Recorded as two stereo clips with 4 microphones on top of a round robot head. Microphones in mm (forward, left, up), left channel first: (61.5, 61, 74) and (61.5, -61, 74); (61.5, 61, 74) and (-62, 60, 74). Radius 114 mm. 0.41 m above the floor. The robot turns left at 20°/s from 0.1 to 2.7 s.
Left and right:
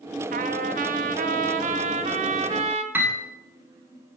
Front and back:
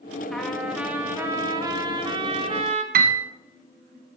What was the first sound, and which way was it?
A trumpet, 85° right.